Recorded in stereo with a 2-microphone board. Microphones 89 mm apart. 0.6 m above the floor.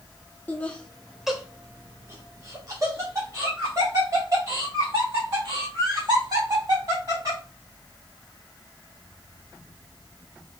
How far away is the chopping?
No chopping in this recording.